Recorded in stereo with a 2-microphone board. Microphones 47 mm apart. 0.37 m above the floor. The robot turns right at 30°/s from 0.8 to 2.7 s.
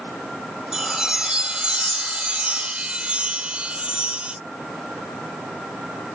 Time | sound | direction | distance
0.7 | a chime | 15° right (ahead or behind) | ?